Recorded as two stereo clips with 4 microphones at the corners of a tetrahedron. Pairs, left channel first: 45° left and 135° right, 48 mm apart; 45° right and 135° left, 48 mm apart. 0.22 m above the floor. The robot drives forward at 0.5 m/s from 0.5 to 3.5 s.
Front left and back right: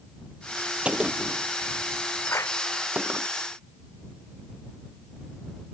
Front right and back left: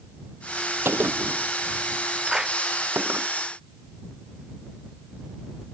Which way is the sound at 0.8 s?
160° left.